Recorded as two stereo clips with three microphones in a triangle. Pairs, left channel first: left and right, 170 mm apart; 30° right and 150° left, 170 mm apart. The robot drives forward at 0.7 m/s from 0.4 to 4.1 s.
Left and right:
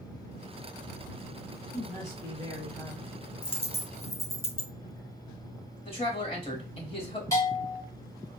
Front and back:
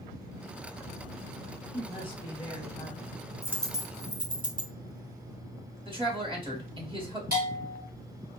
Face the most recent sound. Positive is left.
turn(degrees=160)